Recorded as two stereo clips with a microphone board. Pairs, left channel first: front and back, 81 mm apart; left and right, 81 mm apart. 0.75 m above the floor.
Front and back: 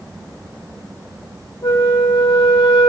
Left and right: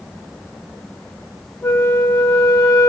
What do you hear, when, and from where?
1.6 s a flute: 20° left, 1.3 m